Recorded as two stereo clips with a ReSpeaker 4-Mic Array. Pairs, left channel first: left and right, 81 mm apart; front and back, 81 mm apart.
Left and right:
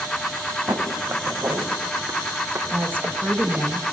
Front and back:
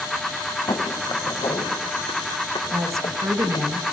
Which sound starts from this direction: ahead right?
Footsteps, at 0.7 s.